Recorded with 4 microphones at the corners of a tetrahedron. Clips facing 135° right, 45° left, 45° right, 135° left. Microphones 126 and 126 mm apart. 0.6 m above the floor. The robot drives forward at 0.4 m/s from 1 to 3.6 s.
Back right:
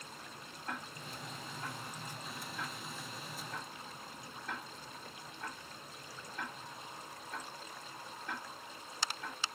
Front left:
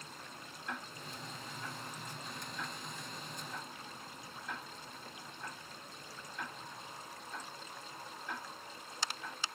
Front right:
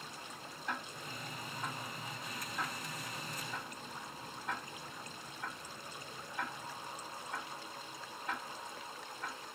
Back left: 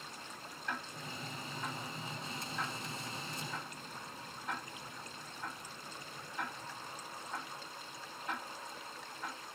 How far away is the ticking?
About 1.8 m.